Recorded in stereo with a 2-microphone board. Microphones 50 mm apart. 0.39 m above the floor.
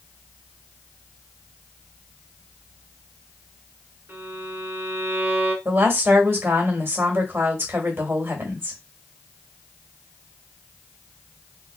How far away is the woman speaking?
About 1.7 m.